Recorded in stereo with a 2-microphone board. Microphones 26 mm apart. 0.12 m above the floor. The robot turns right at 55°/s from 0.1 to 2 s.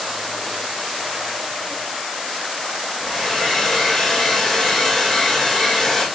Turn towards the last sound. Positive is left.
turn(degrees=5)  # may be behind; listen again after turning